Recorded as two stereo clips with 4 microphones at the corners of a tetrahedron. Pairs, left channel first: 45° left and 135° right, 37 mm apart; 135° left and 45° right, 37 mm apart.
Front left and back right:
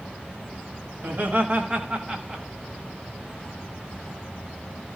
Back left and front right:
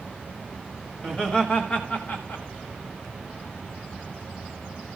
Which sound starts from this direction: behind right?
Laughter, at 1.0 s.